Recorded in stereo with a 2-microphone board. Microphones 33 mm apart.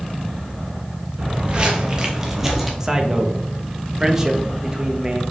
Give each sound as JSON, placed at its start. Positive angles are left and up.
{"t": 1.2, "sound": "footsteps", "side_deg": -35, "distance_m": 1.4}
{"t": 2.8, "sound": "a man speaking", "side_deg": -15, "distance_m": 0.8}